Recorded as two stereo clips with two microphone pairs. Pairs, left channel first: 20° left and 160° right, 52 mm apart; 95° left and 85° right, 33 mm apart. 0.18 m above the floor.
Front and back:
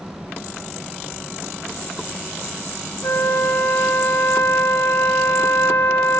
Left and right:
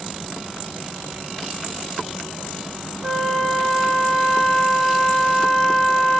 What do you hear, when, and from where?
3.0 s a flute: 10° right, 0.7 m